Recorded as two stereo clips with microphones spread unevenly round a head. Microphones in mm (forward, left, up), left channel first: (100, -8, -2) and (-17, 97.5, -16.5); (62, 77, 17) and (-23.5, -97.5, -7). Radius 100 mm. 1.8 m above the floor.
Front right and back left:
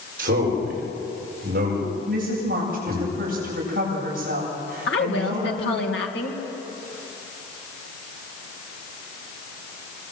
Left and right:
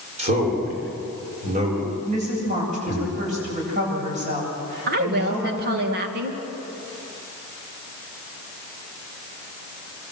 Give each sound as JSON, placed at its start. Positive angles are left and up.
{"t": 0.2, "sound": "a man speaking", "azimuth_deg": 180, "distance_m": 7.0}
{"t": 2.1, "sound": "a woman speaking", "azimuth_deg": -175, "distance_m": 8.5}
{"t": 4.9, "sound": "a woman speaking", "azimuth_deg": -75, "distance_m": 2.5}